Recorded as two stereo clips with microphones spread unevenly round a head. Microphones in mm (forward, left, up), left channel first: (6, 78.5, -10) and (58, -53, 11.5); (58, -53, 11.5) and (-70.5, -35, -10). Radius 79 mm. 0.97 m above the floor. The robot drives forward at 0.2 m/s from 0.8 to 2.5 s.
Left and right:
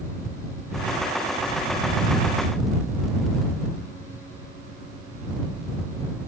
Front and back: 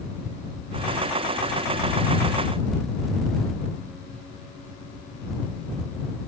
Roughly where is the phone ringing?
No phone ringing in this recording.